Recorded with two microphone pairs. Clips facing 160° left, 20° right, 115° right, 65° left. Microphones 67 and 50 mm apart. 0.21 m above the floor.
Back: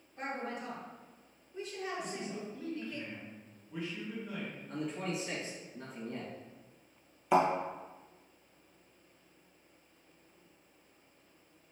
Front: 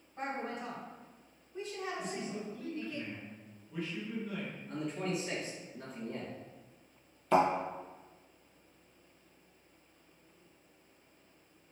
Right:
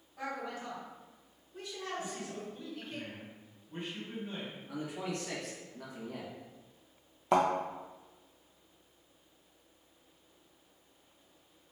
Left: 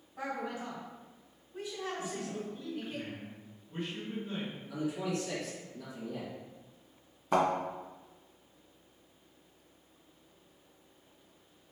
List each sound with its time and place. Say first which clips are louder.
0.2 s a woman speaking: front 1 dB, left 2 dB; 5° right, 1.9 m
2.0 s a man speaking: front 1 dB, left 2 dB; 150° right, 1.6 m
4.7 s a man speaking: front 1 dB, left 4 dB; 110° right, 1.5 m
7.3 s a thud: even, right 1 dB; 125° right, 1.0 m